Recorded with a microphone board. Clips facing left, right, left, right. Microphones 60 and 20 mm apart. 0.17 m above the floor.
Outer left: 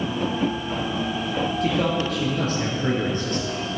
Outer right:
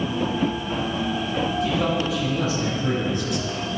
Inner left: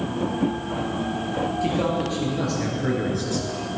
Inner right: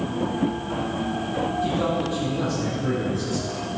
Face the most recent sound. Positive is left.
turn(degrees=40)  # may be behind; listen again after turning